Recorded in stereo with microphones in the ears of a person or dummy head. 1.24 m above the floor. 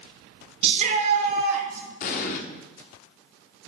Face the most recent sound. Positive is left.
turn(degrees=50)  # may be behind; listen again after turning